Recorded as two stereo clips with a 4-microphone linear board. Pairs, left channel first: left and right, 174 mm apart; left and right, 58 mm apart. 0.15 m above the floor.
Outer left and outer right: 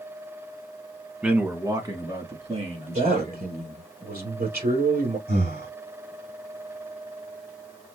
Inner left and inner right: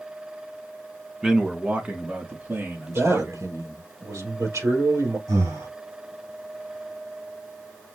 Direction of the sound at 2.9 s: 70° right (ahead or behind).